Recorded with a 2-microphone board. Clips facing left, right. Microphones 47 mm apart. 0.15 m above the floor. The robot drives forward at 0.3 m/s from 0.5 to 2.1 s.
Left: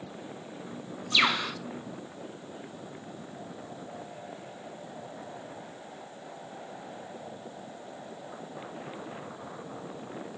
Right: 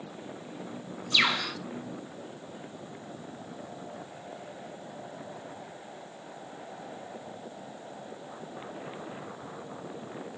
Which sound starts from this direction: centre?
A bird, at 1.1 s.